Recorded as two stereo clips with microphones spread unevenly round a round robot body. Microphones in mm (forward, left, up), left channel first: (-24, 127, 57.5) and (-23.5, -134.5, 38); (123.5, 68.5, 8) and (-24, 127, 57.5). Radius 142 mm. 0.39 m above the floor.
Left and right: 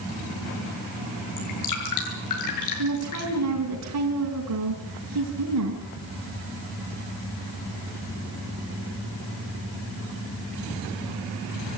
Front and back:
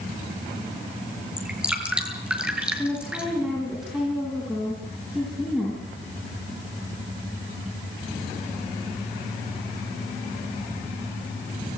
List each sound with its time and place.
1.4 s dripping: 75° left, 7.5 m
2.8 s a woman speaking: 110° right, 4.5 m